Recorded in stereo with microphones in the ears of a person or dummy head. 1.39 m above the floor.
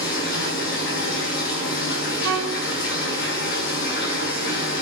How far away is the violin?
About 1.5 m.